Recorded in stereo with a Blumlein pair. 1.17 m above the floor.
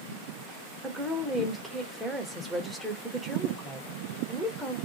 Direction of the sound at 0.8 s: 5° right.